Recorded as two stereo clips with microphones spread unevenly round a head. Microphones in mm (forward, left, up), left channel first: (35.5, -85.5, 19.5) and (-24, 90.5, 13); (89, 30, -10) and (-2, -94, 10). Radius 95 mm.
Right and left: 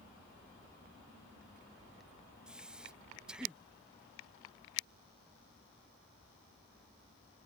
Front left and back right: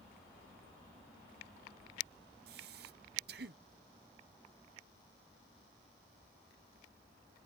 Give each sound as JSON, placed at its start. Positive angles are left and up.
{"t": 2.5, "sound": "breathing", "azimuth_deg": -165}